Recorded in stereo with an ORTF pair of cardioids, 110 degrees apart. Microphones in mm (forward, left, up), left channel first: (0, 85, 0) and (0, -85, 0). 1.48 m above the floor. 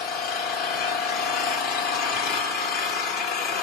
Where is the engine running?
65° left, 2.5 m.